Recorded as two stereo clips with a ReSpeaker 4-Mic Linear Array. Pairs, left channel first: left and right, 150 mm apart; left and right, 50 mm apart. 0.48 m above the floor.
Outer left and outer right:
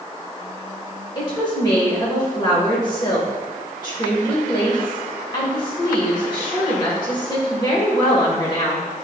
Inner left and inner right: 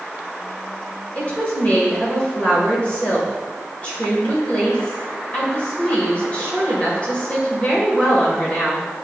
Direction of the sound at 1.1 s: 30° left (ahead or behind).